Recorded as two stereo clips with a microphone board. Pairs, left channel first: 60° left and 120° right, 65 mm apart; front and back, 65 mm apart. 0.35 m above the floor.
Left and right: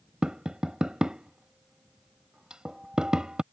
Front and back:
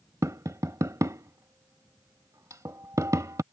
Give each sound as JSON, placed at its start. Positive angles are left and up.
{"t": 0.2, "sound": "tapping", "azimuth_deg": 165}